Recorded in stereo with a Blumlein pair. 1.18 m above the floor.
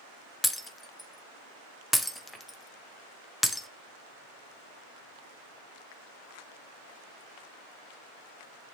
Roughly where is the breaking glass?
Ahead.